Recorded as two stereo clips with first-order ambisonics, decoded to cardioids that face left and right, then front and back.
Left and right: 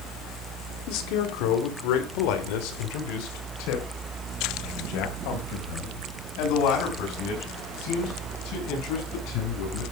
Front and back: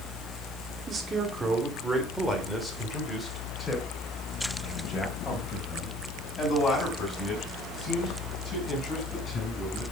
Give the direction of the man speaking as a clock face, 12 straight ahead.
8 o'clock.